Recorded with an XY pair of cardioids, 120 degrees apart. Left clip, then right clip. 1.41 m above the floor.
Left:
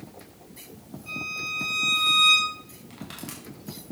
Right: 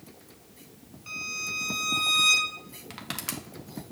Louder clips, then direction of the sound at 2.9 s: Right 5 dB; 50° right.